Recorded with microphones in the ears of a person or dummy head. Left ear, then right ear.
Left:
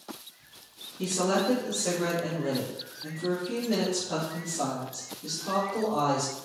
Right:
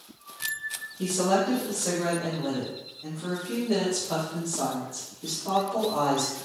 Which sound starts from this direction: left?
A woman speaking, at 1.0 s.